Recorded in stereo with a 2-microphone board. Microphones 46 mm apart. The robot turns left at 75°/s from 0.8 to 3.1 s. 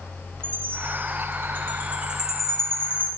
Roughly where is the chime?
Right.